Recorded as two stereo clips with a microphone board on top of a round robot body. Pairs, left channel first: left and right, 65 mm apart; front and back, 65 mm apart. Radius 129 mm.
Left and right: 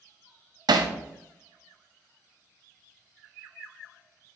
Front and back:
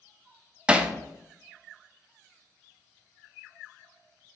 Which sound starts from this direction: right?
Hammering, at 0.7 s.